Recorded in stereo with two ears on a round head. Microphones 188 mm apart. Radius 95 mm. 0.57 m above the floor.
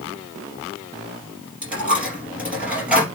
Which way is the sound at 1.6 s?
5° right (ahead or behind).